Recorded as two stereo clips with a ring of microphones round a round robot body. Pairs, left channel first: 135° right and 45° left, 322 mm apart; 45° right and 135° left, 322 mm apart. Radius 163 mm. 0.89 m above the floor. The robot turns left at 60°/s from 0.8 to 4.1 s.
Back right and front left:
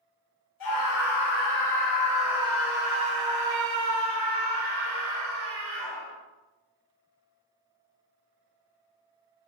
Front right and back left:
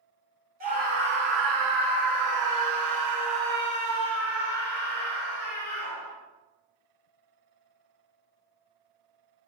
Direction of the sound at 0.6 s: 160° right.